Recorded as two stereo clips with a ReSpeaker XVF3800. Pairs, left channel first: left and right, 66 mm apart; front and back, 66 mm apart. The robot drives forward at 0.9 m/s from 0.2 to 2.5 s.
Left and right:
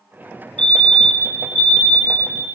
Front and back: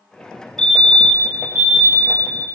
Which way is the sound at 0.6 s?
50° left.